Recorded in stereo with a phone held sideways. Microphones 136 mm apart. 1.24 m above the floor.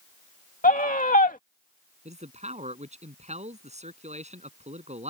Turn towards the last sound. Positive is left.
turn(degrees=-55)  # may be behind; listen again after turning